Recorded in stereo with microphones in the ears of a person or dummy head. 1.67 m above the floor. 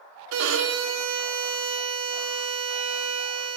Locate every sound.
0.3 s a violin: 75° right (ahead or behind), 0.5 m